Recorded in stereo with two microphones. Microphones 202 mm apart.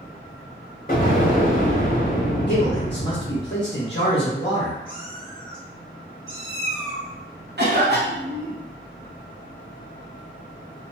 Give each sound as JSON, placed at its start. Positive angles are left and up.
{"t": 0.9, "sound": "an explosion", "side_deg": 45, "distance_m": 0.9}
{"t": 2.5, "sound": "a man speaking", "side_deg": 60, "distance_m": 0.7}
{"t": 4.8, "sound": "a cat meowing", "side_deg": -25, "distance_m": 1.7}
{"t": 7.6, "sound": "a cough", "side_deg": -55, "distance_m": 0.9}